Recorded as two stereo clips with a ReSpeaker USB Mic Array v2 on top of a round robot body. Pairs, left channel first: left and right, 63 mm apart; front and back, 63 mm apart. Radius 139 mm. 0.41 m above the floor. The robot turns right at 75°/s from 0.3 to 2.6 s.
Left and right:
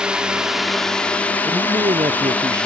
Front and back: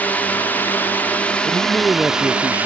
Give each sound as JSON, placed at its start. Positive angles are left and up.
{"t": 0.0, "sound": "a drone", "azimuth_deg": -25}
{"t": 1.4, "sound": "a man speaking", "azimuth_deg": -130}